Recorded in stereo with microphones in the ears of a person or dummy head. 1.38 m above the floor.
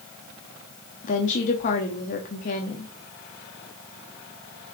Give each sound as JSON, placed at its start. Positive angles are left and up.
{"t": 1.0, "sound": "a woman speaking", "side_deg": 45, "distance_m": 0.8}